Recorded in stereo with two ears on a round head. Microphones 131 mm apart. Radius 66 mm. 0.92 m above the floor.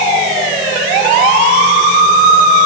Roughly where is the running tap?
I don't hear a running tap.